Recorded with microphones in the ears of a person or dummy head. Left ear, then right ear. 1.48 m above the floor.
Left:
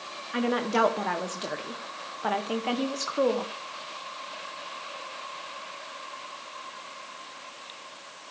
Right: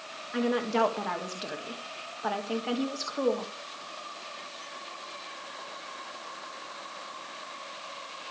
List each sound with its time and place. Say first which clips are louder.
0.3 s a woman speaking: left 2 dB; 10° left (ahead or behind), 1.3 m